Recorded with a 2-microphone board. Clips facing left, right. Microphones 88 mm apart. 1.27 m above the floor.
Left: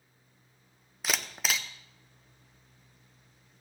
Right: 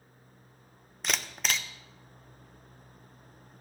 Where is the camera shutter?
5° left (ahead or behind), 0.6 m.